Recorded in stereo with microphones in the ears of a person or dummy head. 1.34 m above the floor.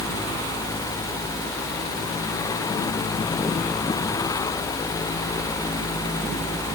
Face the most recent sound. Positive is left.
No sound to turn to.